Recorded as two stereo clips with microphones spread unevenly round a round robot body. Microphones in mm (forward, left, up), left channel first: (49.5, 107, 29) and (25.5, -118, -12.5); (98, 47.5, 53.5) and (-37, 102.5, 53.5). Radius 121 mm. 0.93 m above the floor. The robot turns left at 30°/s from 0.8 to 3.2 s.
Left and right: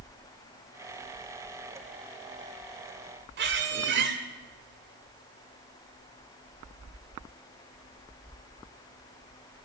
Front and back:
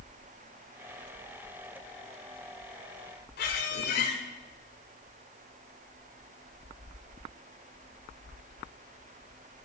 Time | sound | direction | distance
3.4 | a squeak | 55° right | 1.6 m